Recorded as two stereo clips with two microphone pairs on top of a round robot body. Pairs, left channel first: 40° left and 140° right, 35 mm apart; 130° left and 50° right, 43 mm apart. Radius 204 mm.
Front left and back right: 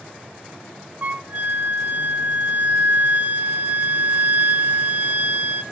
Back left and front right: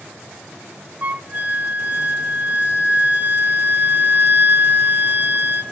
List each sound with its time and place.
1.0 s a flute: 95° right, 1.6 m